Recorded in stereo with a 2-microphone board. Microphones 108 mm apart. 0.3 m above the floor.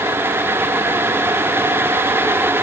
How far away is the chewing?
I don't hear chewing.